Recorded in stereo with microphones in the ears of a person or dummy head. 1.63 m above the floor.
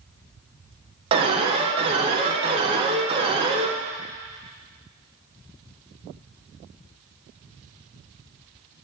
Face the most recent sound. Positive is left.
turn(degrees=-30)  # may be behind; listen again after turning